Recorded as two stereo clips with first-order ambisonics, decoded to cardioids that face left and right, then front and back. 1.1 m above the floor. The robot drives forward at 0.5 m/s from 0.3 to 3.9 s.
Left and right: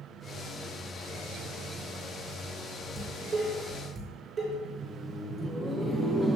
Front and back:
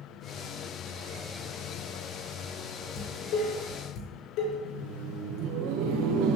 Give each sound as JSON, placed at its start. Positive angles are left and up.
{"t": 3.0, "sound": "dishes clattering", "azimuth_deg": -20, "distance_m": 3.0}
{"t": 4.7, "sound": "laughter", "azimuth_deg": -175, "distance_m": 0.7}